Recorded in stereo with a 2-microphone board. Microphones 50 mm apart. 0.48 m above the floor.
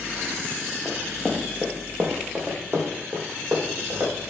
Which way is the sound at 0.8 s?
10° left (ahead or behind).